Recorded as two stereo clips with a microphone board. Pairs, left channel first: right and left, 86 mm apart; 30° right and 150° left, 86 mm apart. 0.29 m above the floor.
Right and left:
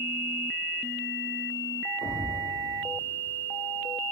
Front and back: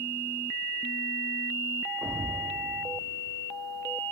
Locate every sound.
2.0 s a thud: 105° right, 8 m